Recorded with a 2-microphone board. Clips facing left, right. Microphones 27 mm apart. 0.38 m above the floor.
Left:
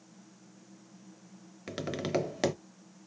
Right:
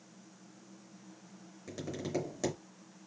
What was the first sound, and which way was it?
Tapping, 60° left (ahead or behind).